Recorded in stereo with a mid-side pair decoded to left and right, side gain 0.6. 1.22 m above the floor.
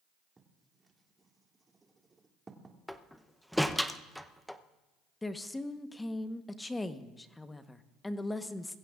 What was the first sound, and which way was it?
Writing, 20° right.